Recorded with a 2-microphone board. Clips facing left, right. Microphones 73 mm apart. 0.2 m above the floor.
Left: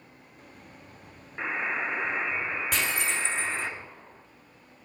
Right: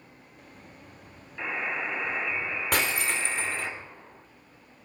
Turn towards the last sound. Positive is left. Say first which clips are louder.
# right 4 dB
turn(degrees=-50)  # may be behind; listen again after turning